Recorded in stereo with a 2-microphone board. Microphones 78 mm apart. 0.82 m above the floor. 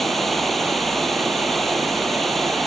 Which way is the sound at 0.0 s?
Centre (ahead or behind).